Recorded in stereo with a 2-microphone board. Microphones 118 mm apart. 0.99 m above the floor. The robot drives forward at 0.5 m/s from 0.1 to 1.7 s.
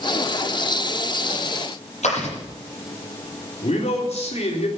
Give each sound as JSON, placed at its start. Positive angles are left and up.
{"t": 2.0, "sound": "chewing", "side_deg": 80, "distance_m": 9.0}
{"t": 3.6, "sound": "a man speaking", "side_deg": 70, "distance_m": 3.5}